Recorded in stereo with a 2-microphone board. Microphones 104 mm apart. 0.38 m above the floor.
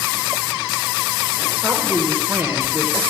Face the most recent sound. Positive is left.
turn(degrees=-25)  # may be behind; listen again after turning